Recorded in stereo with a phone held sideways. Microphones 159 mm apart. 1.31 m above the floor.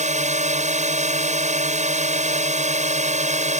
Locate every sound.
0.0 s a drone: 50° right (ahead or behind)